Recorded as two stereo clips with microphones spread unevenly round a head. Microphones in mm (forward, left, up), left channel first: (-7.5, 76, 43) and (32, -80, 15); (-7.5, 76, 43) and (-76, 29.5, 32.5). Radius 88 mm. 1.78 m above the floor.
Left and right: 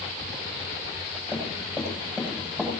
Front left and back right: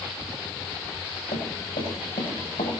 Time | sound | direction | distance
1.3 | running footsteps | 15° left | 6.5 m